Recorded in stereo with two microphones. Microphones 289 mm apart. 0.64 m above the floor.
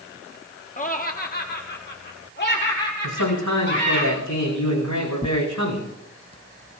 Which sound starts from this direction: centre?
Tearing paper, at 5.2 s.